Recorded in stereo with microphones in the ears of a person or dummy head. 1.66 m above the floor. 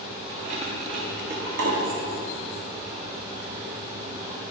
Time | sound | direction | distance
0.3 | keys jangling | 25° right (ahead or behind) | 2 m